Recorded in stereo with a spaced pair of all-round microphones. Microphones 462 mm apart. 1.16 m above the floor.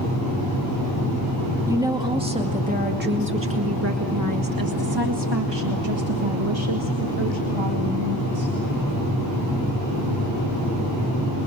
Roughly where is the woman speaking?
Centre.